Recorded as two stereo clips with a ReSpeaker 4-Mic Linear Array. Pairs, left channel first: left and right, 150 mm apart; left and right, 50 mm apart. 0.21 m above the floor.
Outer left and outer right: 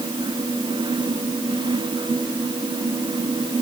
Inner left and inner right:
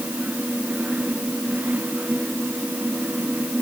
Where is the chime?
No chime in this recording.